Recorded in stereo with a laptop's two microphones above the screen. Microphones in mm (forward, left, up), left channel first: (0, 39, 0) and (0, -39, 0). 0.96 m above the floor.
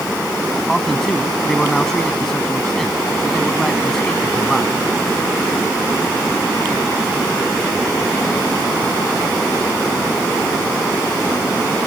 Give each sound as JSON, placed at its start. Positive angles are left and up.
{"t": 0.7, "sound": "a man speaking", "side_deg": 5}